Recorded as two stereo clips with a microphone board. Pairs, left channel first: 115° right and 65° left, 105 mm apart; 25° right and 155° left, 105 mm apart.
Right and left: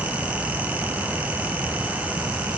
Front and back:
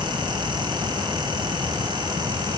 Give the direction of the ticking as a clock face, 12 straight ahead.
No ticking in this recording.